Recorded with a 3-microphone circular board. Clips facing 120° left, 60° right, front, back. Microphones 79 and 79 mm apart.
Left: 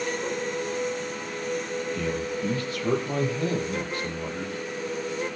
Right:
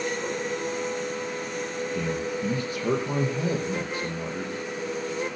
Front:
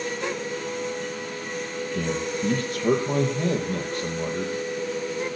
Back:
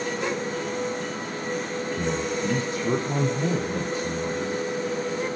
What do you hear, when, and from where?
1.9 s a man speaking: 15° left, 5.5 m